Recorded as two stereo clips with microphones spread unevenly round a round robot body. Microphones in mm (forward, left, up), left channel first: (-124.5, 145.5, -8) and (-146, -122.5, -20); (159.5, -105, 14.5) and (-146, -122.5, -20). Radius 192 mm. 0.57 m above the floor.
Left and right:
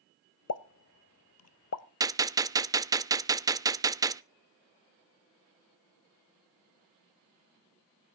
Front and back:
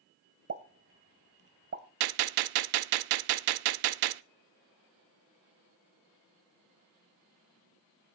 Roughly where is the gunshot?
Behind.